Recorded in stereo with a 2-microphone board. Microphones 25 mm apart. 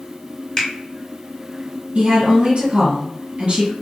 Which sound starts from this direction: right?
A woman speaking, at 1.9 s.